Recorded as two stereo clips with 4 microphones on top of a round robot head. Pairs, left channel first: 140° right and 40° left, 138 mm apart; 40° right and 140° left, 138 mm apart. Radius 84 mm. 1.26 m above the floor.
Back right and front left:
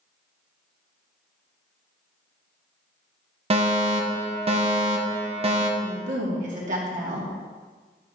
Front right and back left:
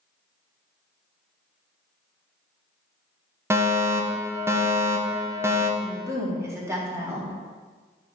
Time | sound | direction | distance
3.5 | a fire alarm | 75° left | 1.3 m
5.8 | a woman speaking | 70° left | 2.5 m